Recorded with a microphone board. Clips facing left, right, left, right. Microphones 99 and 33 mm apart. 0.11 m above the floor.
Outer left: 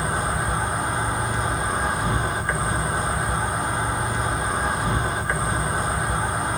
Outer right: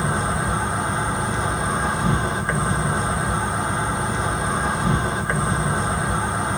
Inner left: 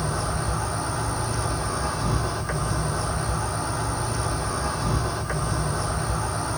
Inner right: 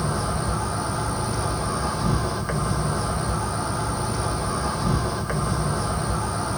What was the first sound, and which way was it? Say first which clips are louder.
An insect: outer right 2 dB, inner right 2 dB; 25° right (ahead or behind).